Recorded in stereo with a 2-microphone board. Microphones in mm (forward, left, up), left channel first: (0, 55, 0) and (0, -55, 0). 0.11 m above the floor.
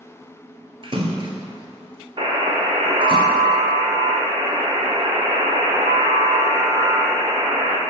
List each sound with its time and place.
0.8 s a splash: 55° right (ahead or behind), 1.1 m
2.2 s a buzzer: 45° right (ahead or behind), 1.3 m